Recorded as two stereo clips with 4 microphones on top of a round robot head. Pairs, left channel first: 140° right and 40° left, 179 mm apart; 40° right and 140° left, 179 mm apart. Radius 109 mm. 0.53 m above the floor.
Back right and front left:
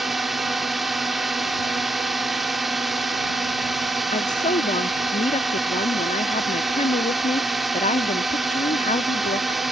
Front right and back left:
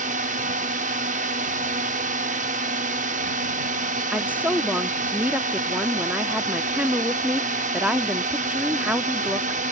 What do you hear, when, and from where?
0.0 s a drone: 130° left
4.1 s a woman speaking: 145° right